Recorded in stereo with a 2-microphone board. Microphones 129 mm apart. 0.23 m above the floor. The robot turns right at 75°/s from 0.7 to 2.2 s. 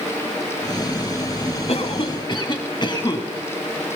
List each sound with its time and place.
1.7 s a cough: 95° left, 2.0 m; by 3.2 s 135° left, 2.0 m